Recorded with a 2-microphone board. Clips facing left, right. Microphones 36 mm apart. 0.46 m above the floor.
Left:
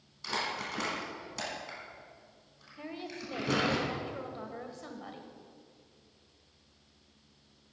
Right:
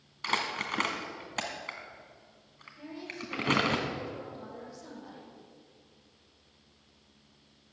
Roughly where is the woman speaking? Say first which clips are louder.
Even; left.